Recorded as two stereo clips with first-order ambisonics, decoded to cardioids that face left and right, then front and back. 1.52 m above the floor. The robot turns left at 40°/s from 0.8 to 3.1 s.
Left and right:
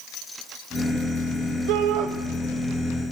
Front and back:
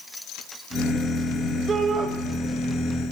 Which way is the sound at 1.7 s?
110° right.